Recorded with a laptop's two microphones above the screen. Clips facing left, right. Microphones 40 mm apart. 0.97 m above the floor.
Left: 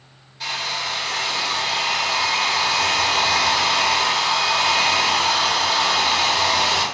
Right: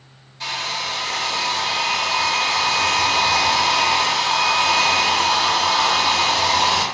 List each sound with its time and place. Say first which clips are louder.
0.4 s a hair dryer: even; 5° left (ahead or behind), 0.7 m